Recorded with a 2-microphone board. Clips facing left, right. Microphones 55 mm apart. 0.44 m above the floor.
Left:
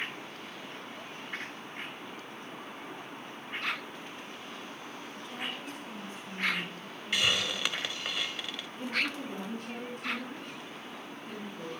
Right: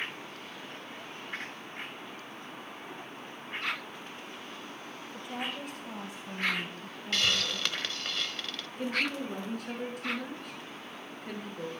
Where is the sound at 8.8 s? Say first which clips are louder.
Right 2 dB; 70° right (ahead or behind), 8.5 m.